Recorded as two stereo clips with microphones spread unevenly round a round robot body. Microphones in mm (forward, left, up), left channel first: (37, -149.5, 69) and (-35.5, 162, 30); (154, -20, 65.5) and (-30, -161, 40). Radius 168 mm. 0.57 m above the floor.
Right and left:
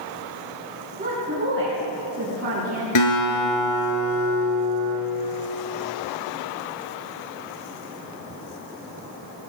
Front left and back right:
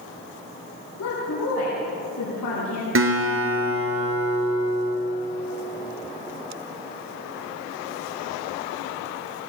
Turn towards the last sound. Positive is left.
turn(degrees=-110)